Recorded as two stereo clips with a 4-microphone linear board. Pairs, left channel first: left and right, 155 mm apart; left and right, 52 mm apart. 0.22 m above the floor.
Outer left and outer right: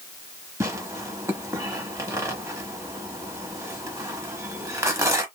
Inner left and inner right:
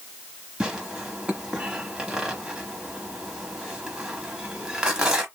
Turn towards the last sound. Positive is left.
turn(degrees=-20)  # may be behind; listen again after turning